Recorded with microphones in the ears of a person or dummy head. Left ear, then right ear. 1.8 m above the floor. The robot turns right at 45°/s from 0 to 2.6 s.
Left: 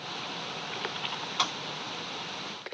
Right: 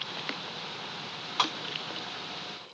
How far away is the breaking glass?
About 1.9 m.